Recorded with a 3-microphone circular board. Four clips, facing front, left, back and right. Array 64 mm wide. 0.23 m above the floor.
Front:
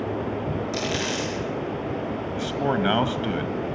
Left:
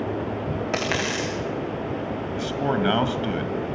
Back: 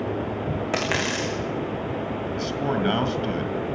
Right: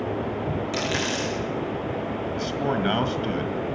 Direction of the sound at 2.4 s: 30° left.